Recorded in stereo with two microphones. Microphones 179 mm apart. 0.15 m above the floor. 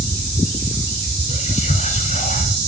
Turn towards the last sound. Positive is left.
turn(degrees=40)  # may be behind; listen again after turning